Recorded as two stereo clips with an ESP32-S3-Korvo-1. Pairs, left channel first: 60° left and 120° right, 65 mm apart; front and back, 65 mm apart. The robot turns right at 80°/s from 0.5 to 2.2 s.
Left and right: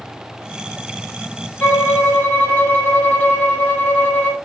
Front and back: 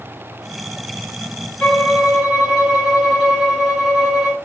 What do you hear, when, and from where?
1.6 s a violin: 50° left, 1.0 m; by 4.3 s 95° left, 1.0 m